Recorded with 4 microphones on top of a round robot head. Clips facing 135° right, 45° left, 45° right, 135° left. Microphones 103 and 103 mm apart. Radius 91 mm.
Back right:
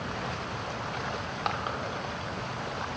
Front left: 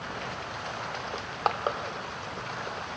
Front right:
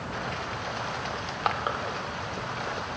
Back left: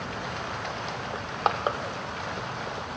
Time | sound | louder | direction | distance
1.1 | crushing | front left 7 dB, back left 4 dB | 80° left | 1.0 m